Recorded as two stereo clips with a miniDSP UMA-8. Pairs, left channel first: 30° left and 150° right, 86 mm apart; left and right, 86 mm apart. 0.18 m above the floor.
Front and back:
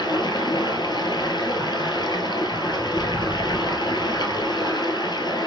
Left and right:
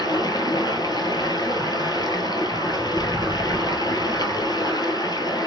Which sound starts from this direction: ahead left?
Running water, at 0.0 s.